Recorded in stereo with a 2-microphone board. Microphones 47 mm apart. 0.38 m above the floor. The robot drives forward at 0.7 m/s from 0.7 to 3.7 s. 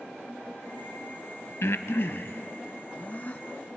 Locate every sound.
1.6 s breathing: 70° left (ahead or behind), 1.0 m; by 3.4 s 30° left (ahead or behind), 1.8 m